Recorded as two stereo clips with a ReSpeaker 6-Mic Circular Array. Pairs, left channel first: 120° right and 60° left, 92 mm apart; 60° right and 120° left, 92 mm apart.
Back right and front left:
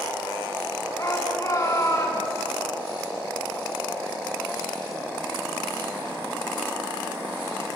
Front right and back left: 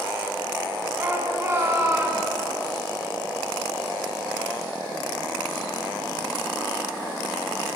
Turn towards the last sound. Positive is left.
turn(degrees=-175)